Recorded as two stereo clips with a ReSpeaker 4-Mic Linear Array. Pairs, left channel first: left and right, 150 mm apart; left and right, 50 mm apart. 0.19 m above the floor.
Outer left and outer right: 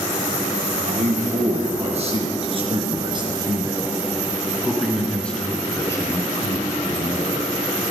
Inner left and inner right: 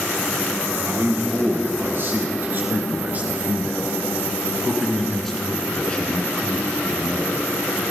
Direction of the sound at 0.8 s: 55° right (ahead or behind).